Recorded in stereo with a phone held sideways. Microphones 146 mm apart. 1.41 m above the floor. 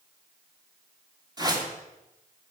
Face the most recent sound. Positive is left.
turn(degrees=-30)  # may be behind; listen again after turning